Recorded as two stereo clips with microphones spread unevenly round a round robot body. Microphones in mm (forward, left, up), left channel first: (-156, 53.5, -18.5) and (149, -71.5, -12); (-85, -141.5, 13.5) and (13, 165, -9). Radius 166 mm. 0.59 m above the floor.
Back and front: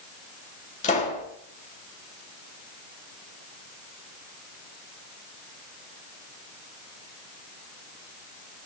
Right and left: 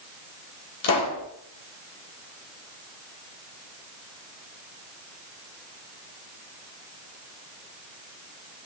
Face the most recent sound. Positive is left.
turn(degrees=-135)